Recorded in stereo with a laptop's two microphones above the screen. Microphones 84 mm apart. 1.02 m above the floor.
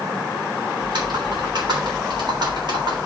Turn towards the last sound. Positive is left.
turn(degrees=-65)  # may be behind; listen again after turning